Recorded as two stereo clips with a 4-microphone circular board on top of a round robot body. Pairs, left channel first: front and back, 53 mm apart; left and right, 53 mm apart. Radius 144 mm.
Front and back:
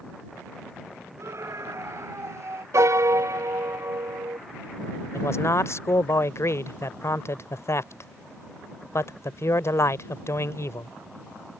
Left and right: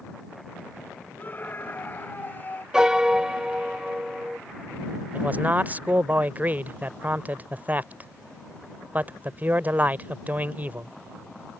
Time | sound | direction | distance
1.2 | a scream | 145° left | ?
2.7 | a piano | 165° right | ?
5.1 | a man speaking | 30° right | ?